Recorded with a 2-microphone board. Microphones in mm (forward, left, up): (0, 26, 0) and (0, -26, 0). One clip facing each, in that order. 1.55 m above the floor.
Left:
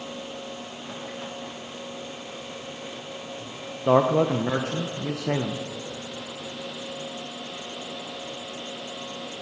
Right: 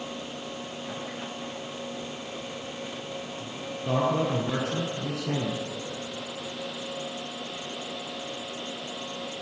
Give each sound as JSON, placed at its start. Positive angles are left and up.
{"t": 3.9, "sound": "a man speaking", "side_deg": 65, "distance_m": 0.8}